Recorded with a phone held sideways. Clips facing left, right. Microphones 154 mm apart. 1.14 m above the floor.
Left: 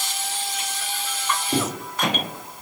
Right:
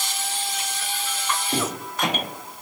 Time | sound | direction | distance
1.5 | footsteps | 10° left (ahead or behind) | 1.1 m